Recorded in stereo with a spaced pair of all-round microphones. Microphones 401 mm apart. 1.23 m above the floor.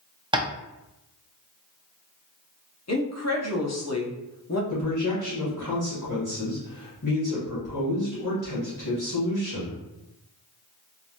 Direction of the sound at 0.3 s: 10° right (ahead or behind).